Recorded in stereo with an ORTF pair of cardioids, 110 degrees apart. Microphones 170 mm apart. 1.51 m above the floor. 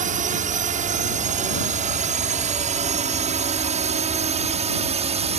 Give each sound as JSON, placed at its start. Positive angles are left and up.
{"t": 0.0, "sound": "a drone", "azimuth_deg": -50}